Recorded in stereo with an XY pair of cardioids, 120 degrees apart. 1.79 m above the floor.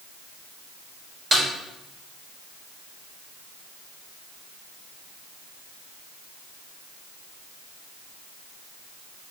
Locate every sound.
1.3 s a snare drum: 30° right, 1.6 m